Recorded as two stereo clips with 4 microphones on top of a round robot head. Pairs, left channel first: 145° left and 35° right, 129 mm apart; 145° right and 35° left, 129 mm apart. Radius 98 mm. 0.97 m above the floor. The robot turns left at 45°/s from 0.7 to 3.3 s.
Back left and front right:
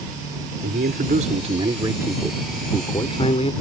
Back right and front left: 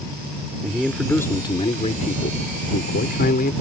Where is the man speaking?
50° right; by 3.5 s 165° right.